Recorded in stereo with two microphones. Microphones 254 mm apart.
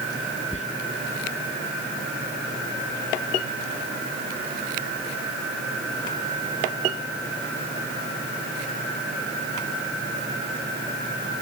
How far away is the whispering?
About 1.2 m.